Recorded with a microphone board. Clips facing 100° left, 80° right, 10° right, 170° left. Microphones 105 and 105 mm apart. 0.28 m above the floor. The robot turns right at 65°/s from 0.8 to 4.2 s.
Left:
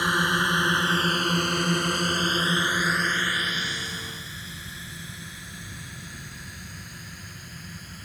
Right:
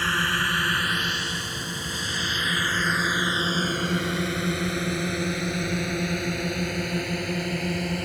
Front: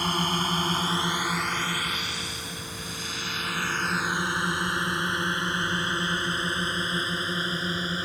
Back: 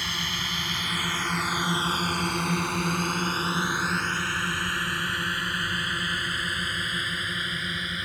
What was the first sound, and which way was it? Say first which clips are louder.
A drone: left 2 dB, front 7 dB; 30° left.